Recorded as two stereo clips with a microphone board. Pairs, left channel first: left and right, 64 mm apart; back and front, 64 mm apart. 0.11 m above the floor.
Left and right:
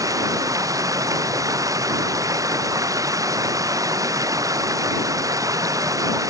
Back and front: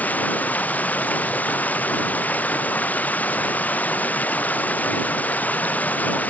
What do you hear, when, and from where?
0.0 s running water: 115° right